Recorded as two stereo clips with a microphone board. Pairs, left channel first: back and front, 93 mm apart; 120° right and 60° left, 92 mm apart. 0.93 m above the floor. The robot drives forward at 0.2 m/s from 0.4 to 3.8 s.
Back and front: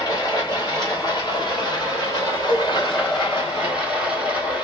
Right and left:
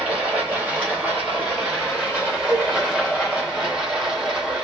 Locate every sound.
0.0 s running water: 135° left, 2.5 m; by 4.7 s 145° left, 3 m
2.5 s a cowbell: 140° left, 3.5 m